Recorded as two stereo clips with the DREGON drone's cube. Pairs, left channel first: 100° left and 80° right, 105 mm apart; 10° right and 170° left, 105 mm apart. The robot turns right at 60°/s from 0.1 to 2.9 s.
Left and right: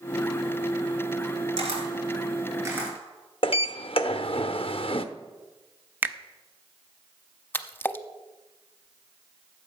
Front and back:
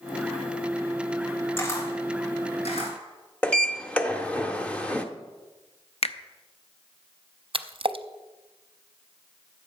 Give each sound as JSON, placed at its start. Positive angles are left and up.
{"t": 1.6, "sound": "a camera shutter", "azimuth_deg": -80, "distance_m": 3.5}
{"t": 3.4, "sound": "a sliding door", "azimuth_deg": 65, "distance_m": 0.8}
{"t": 6.0, "sound": "a finger snap", "azimuth_deg": -10, "distance_m": 0.7}
{"t": 7.5, "sound": "a splash", "azimuth_deg": 165, "distance_m": 0.6}